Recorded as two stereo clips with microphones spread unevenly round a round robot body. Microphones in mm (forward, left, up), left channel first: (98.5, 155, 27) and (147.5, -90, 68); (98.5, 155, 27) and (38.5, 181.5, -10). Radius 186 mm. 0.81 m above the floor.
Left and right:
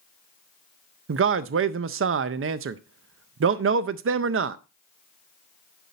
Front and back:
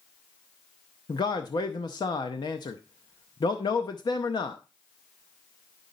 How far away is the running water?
No running water in this recording.